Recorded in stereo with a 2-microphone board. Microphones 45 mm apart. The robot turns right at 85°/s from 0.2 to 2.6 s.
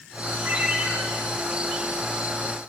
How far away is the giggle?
I don't hear a giggle.